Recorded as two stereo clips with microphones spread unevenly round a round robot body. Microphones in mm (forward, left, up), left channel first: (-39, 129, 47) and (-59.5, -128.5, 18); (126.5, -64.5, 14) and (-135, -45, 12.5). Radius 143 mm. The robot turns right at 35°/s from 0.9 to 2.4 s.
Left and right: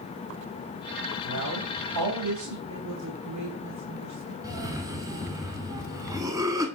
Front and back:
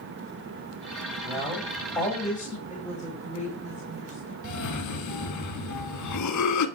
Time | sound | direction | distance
1.2 | a man speaking | 105° right | 4 m
2.7 | a woman speaking | 65° right | 3.5 m
4.4 | a cough | 20° right | 1.5 m